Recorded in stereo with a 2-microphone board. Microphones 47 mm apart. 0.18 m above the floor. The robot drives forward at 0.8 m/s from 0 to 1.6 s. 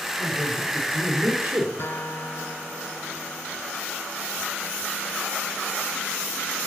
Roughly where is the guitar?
Left.